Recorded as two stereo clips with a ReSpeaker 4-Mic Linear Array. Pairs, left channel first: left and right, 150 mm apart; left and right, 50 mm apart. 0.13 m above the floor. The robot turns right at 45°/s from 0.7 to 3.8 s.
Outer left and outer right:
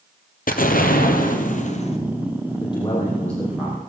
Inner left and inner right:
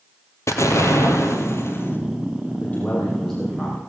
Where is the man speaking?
140° left, 4.5 m; by 3.8 s 165° right, 4.5 m.